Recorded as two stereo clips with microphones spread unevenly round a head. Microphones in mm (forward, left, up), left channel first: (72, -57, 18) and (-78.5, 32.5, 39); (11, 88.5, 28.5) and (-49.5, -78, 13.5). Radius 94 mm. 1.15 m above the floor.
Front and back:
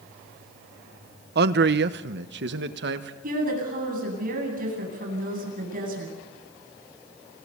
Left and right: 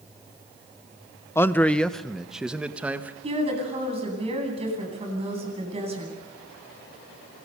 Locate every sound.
1.4 s a man speaking: 145° left, 1.0 m; by 3.1 s 170° left, 1.9 m
3.2 s a woman speaking: 170° right, 9.5 m